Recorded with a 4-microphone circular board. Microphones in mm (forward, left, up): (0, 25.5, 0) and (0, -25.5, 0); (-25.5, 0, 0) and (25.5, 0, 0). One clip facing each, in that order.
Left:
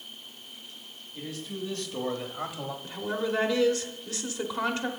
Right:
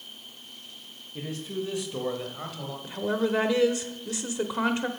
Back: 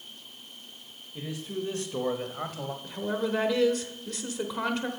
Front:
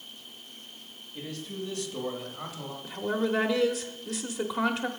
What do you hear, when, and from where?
1.1 s a man speaking: 105° right, 1.1 m; by 2.7 s 155° left, 1.5 m
2.8 s a woman speaking: 80° right, 0.8 m